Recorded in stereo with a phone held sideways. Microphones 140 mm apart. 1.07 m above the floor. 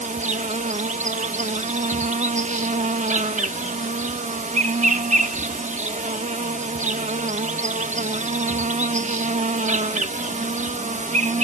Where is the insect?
60° right (ahead or behind).